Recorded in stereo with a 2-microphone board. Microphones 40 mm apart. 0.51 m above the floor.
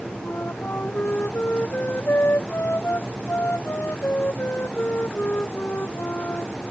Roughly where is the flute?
Left.